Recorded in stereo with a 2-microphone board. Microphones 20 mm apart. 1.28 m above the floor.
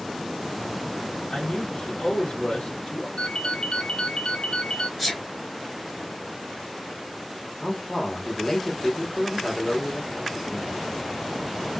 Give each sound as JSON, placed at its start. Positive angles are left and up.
{"t": 1.3, "sound": "a man speaking", "side_deg": 65, "distance_m": 1.0}
{"t": 3.2, "sound": "a ringtone", "side_deg": 65, "distance_m": 0.6}
{"t": 5.0, "sound": "a sneeze", "side_deg": -10, "distance_m": 1.1}
{"t": 7.6, "sound": "a man speaking", "side_deg": 15, "distance_m": 1.3}